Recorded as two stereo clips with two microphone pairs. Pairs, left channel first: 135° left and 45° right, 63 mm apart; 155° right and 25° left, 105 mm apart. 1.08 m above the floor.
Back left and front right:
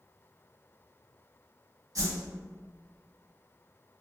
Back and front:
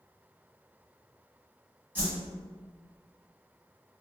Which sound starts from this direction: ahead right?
A whoosh, at 1.9 s.